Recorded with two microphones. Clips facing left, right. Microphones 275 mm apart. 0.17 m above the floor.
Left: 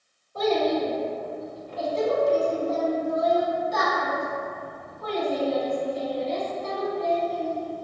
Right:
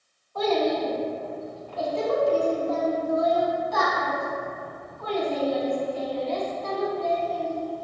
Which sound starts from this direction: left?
A child speaking, at 0.3 s.